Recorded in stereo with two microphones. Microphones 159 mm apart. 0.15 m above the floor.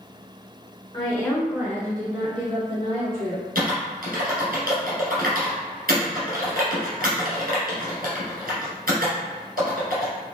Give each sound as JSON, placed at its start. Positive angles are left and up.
{"t": 0.9, "sound": "a woman speaking", "side_deg": 30, "distance_m": 1.5}
{"t": 3.5, "sound": "typing on a keyboard", "side_deg": -70, "distance_m": 1.8}